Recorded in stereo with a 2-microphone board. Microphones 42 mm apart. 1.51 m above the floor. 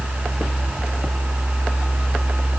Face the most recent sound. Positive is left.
No sound to turn to.